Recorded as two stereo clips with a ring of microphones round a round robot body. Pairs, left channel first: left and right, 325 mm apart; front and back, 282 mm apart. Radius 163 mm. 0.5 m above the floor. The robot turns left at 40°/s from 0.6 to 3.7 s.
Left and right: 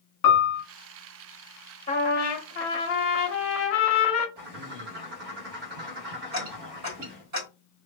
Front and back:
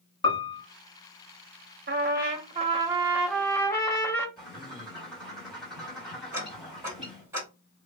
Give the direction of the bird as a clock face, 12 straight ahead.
3 o'clock.